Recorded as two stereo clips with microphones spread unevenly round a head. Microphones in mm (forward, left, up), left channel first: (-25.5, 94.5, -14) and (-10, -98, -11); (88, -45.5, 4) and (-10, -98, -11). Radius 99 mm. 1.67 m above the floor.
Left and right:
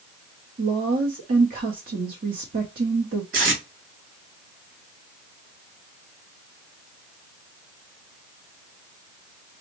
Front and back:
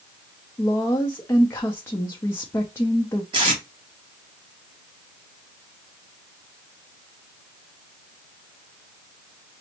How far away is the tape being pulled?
About 2.0 m.